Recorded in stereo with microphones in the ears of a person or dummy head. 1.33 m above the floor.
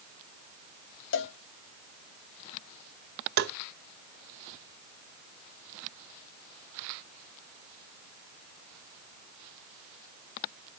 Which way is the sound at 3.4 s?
60° right (ahead or behind).